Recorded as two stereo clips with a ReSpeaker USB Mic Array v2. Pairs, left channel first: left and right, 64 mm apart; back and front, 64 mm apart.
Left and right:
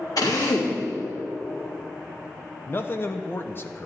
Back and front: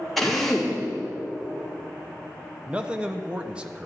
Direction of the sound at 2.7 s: 65° left.